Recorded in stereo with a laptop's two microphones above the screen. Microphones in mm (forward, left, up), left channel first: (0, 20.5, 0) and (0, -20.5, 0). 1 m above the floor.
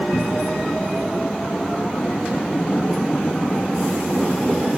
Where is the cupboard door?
50° left (ahead or behind), 2.5 m.